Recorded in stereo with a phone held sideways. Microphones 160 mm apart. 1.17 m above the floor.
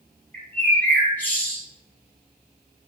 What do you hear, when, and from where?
0.3 s a bird: 10° left (ahead or behind), 1.5 m